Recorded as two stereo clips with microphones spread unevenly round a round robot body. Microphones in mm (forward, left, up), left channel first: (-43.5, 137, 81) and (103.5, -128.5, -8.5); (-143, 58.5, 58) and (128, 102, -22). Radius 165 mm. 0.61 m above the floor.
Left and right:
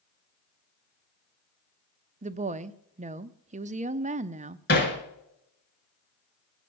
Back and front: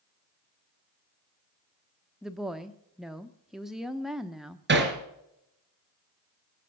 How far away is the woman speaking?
About 0.7 m.